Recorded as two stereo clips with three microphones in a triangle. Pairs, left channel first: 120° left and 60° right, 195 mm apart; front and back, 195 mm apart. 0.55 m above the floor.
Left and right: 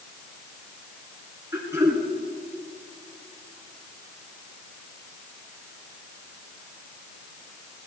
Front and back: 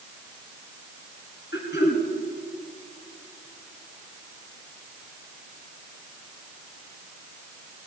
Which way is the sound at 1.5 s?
15° left.